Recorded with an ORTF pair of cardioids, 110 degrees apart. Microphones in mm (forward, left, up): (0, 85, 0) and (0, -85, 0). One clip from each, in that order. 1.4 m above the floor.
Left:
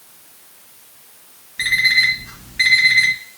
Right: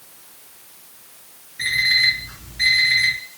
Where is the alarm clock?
60° left, 1.5 m.